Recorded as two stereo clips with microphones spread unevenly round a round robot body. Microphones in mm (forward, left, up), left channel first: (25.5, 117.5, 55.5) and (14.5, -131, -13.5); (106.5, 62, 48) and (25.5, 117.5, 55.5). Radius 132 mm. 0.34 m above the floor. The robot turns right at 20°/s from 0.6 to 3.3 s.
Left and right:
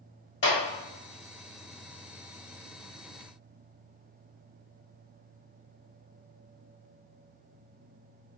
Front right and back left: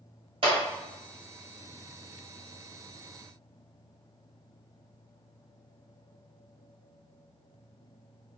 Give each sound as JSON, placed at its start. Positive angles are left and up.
{"t": 0.4, "sound": "a clap", "azimuth_deg": 140, "distance_m": 1.6}